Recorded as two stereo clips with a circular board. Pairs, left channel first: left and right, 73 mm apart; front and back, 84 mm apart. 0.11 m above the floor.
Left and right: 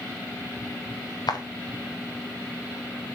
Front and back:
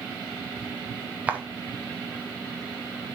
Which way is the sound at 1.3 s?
105° left.